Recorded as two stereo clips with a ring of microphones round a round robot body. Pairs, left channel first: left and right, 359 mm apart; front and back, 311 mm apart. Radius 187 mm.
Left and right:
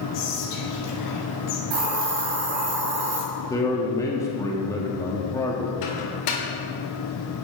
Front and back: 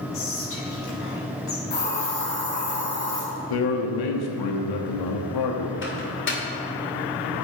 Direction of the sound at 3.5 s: 10° left.